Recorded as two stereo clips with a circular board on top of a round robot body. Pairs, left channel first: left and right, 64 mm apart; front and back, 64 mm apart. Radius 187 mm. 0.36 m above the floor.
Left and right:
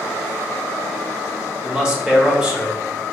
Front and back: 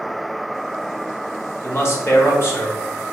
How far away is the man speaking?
About 1.9 m.